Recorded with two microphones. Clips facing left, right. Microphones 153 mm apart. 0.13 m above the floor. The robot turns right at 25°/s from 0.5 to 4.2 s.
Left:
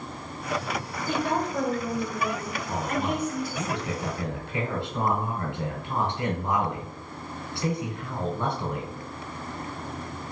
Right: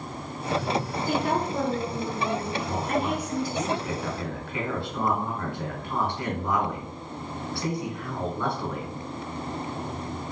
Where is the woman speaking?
155° right, 1.4 m; by 3.7 s 90° right, 1.4 m.